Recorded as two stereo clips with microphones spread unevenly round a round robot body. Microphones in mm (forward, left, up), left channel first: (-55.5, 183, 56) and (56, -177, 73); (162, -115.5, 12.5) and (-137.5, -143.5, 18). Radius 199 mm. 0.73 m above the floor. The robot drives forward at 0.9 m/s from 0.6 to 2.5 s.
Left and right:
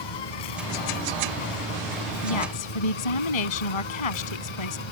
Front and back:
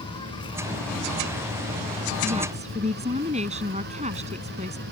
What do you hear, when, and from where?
0.0 s an insect: 85° left; by 4.9 s 120° left
2.2 s a woman speaking: 110° left